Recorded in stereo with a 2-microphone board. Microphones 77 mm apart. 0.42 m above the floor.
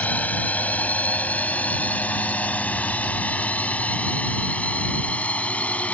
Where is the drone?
15° left (ahead or behind).